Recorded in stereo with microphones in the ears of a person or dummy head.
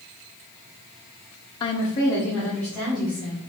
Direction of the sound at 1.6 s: 30° left (ahead or behind).